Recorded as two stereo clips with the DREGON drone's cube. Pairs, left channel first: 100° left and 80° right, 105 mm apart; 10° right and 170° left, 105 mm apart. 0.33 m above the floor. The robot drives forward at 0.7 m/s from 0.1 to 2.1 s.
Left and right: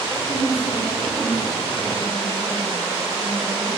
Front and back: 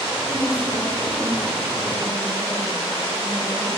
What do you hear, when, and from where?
0.3 s a woman speaking: 100° left, 4.5 m; by 3.7 s 115° left, 4.5 m